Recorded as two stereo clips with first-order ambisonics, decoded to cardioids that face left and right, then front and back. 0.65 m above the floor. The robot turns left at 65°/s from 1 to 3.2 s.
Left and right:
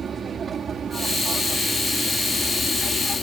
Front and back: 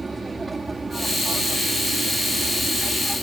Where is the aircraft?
115° right; by 3.2 s 100° left.